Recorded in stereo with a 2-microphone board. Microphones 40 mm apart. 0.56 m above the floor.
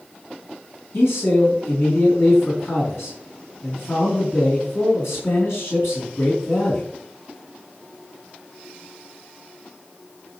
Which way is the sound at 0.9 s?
80° left.